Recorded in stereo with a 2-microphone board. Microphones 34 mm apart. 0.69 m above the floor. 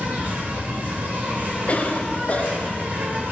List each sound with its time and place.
0.0 s an insect: 60° right (ahead or behind), 2 m
1.7 s a cough: 45° left (ahead or behind), 0.9 m